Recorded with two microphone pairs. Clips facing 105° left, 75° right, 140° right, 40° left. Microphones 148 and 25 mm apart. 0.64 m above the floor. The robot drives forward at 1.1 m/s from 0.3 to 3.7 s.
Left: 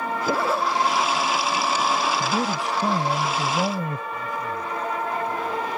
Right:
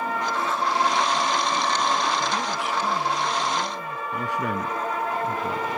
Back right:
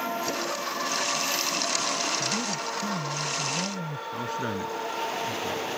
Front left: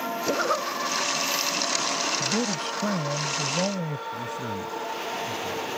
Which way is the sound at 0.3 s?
80° left.